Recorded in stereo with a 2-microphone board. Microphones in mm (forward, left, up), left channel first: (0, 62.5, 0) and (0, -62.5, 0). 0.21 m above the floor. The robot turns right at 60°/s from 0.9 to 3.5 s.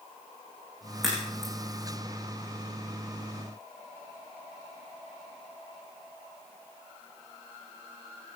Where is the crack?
Centre (ahead or behind), 8.5 m; by 1.5 s 30° left (ahead or behind), 8.5 m.